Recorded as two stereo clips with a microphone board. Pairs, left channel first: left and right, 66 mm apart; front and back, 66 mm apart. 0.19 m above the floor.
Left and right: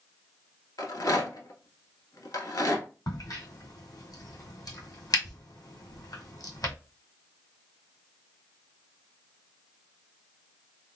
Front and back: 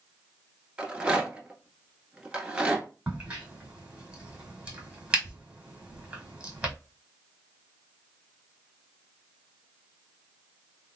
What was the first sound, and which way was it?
A rattle, 110° left.